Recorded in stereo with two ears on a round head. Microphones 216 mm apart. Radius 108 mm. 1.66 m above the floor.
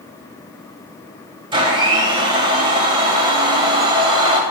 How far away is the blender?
About 1.5 m.